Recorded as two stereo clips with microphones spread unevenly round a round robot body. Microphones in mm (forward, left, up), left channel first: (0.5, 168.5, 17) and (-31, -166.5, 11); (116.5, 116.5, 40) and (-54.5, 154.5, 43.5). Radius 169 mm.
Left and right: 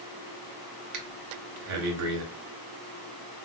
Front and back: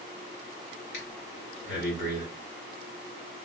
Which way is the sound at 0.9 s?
50° right.